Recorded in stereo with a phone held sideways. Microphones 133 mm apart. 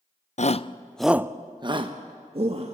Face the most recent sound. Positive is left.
turn(degrees=-50)  # may be behind; listen again after turning